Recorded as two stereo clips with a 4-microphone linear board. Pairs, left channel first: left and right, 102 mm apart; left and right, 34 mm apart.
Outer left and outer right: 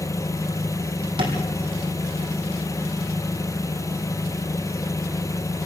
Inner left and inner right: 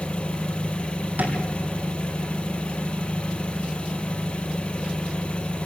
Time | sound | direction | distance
0.0 | an engine running | 30° left (ahead or behind) | 1.1 m
1.2 | tapping | 55° right (ahead or behind) | 4 m